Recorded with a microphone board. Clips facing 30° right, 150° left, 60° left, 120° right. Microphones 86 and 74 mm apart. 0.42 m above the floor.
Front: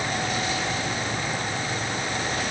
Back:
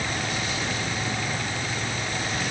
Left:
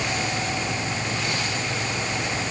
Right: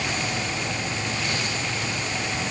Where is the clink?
I don't hear a clink.